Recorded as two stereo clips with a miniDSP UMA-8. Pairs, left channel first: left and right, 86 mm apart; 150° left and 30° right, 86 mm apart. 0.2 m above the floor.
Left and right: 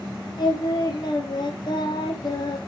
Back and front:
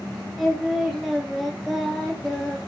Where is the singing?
60° left, 2 m.